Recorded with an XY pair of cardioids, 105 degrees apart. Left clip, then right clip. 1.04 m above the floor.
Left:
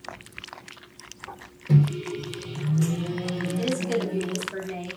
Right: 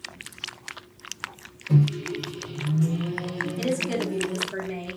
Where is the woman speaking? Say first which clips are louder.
Even; 10° right, 0.9 m.